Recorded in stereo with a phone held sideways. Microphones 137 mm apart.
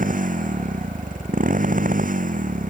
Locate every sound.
0.0 s a motorcycle: 75° right (ahead or behind)